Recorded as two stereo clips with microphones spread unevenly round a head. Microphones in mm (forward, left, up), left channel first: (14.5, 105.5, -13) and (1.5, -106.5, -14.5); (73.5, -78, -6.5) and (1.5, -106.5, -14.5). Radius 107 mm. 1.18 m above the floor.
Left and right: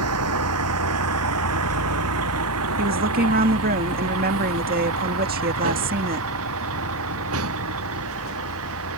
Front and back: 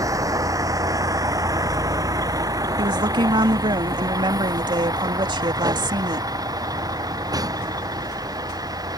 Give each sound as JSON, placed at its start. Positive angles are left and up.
{"t": 0.0, "sound": "a vehicle", "azimuth_deg": -115}
{"t": 2.8, "sound": "a woman speaking", "azimuth_deg": -145}